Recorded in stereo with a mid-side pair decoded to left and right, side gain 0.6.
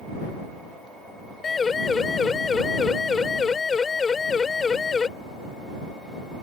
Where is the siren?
25° left.